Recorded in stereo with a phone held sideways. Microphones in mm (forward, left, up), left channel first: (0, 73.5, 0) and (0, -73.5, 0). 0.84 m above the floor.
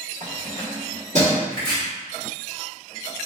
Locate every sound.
0.2 s keys jangling: 55° right (ahead or behind), 1.2 m
1.5 s chopping: 75° right (ahead or behind), 1.7 m